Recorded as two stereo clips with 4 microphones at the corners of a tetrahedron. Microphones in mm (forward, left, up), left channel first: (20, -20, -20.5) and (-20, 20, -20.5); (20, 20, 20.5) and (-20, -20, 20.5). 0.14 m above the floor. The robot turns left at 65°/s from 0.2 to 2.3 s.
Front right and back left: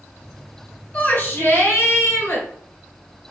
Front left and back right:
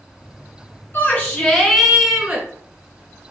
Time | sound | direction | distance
0.9 | a shout | 5° left | 2 m